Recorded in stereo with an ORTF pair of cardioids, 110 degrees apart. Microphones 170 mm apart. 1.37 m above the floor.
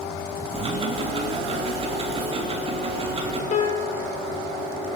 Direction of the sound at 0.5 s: 35° right.